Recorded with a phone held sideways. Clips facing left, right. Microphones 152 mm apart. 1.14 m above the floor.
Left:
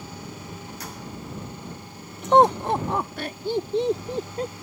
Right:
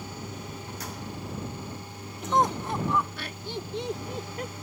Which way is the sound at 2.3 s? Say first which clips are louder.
Left 8 dB; 65° left (ahead or behind).